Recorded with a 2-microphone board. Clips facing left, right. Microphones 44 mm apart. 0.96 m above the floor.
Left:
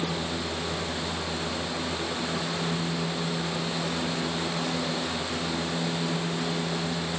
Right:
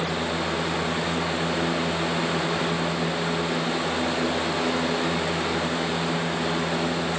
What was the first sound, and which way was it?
Only background noise.